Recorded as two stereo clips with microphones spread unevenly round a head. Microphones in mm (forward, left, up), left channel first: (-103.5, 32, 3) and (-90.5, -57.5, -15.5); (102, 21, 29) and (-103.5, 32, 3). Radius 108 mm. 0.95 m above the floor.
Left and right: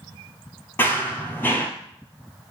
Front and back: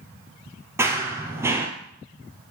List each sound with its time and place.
0.8 s running footsteps: 95° left, 1.1 m